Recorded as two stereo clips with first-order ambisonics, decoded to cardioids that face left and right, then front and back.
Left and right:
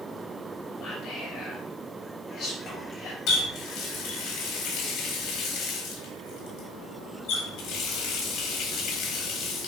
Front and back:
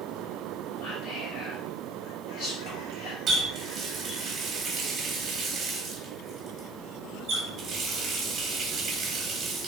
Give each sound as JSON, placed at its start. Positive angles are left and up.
{"t": 0.8, "sound": "whispering", "azimuth_deg": 35, "distance_m": 2.5}
{"t": 3.3, "sound": "a running tap", "azimuth_deg": 120, "distance_m": 1.4}